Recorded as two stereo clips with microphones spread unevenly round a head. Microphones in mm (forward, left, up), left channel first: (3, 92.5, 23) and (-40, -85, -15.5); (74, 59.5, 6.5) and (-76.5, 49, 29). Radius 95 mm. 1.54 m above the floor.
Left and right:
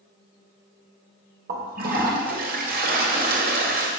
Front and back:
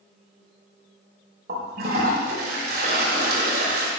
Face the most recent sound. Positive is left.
turn(degrees=-145)